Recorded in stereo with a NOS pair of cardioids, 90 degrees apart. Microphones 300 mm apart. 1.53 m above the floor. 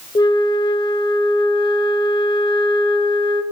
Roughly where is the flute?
Ahead.